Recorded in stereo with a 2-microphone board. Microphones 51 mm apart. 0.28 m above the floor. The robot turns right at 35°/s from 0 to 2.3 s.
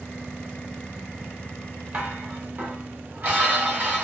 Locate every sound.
1.9 s dishes clattering: 30° right (ahead or behind), 0.9 m; by 4.0 s 35° right (ahead or behind), 0.9 m